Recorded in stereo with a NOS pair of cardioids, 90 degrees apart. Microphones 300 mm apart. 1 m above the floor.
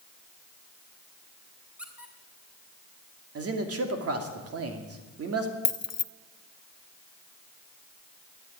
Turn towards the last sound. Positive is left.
turn(degrees=55)